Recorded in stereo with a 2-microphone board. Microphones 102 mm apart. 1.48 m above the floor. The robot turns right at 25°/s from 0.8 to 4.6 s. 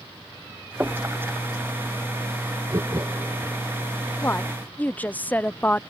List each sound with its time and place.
0.8 s knocking: 15° right (ahead or behind); by 1.1 s 25° right (ahead or behind)
2.7 s laughter: 40° right (ahead or behind); by 3.6 s 20° right (ahead or behind)
4.2 s a woman speaking: 25° left (ahead or behind); by 5.8 s 15° left (ahead or behind)